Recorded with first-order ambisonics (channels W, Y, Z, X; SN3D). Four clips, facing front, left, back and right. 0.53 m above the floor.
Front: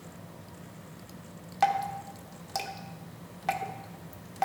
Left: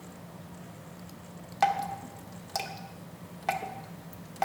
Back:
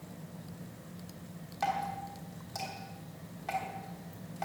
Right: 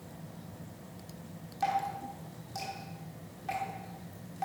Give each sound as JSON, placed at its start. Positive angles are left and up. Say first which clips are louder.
{"t": 1.6, "sound": "dripping", "louder": "left 4 dB, front 6 dB", "azimuth_deg": 50, "distance_m": 1.1}